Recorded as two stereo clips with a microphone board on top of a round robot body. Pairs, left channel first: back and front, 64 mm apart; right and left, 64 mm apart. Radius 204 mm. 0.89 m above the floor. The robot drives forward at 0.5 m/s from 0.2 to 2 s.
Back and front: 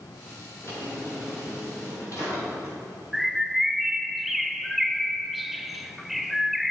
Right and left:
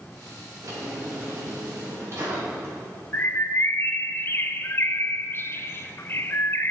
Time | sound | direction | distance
0.6 | a drawer | 130° left | 2.5 m
3.1 | a bird | 85° right | 0.7 m